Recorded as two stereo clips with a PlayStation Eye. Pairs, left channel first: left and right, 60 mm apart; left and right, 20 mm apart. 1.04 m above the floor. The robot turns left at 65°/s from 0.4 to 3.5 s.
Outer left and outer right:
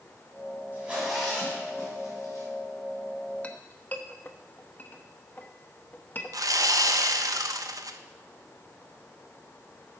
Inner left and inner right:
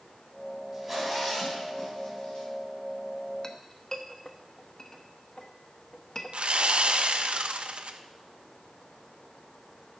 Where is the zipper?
30° right (ahead or behind), 4 m; by 2.5 s 80° left, 4 m.